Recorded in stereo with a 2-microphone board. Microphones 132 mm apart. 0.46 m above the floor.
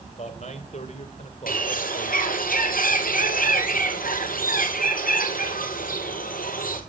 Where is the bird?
80° left, 2.5 m.